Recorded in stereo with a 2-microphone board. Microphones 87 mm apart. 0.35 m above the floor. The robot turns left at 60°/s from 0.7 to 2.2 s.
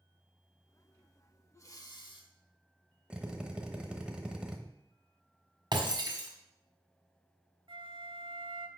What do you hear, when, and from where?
1.5 s breathing: 145° left, 0.9 m; by 2.3 s 105° left, 0.9 m
3.1 s a drill: 10° right (ahead or behind), 0.9 m
5.7 s breaking glass: 55° right (ahead or behind), 1.6 m
7.7 s a flute: 75° right (ahead or behind), 0.6 m